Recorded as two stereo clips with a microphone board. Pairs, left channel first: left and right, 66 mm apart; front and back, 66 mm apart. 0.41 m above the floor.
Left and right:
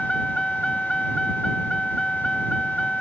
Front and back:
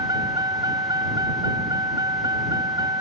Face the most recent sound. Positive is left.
turn(degrees=170)